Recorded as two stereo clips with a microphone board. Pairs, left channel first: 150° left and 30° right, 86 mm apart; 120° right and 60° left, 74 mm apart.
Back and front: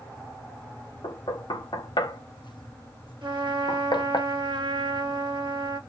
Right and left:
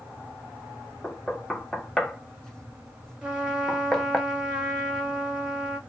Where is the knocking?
160° left, 0.8 m.